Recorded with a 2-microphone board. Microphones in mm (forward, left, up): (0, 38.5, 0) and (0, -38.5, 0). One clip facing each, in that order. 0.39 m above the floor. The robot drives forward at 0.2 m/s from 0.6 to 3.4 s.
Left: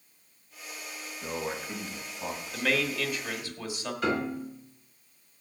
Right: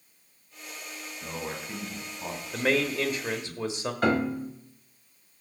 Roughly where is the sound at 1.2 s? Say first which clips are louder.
Left 2 dB; centre.